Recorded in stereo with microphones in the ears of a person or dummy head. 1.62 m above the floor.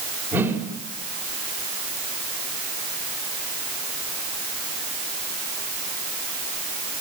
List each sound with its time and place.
0.3 s a whoosh: 10° right (ahead or behind), 5.5 m